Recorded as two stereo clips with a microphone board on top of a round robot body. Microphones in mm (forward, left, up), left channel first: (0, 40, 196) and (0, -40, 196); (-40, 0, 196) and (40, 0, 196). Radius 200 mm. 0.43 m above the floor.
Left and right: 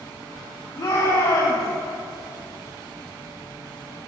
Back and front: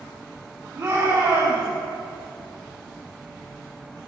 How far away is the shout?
About 5.5 m.